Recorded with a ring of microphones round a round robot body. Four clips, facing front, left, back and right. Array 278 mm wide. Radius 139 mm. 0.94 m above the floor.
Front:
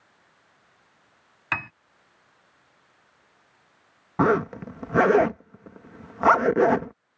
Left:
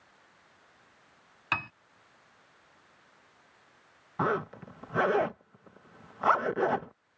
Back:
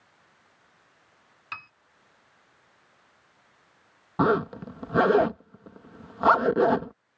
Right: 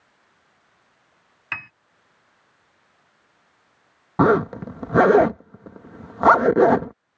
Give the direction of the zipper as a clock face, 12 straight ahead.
3 o'clock.